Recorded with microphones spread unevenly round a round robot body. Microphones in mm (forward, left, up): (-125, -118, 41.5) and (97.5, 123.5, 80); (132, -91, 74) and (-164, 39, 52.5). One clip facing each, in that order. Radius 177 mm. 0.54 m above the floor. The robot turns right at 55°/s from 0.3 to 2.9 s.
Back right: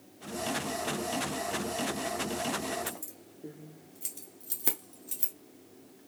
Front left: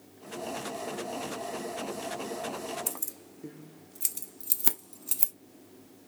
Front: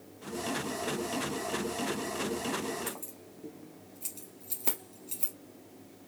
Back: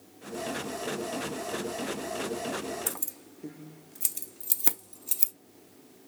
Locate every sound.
2.9 s keys jangling: 110° left, 0.5 m; by 5.3 s 115° left, 0.5 m